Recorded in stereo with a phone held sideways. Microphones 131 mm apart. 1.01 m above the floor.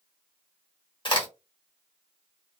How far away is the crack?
About 1.0 m.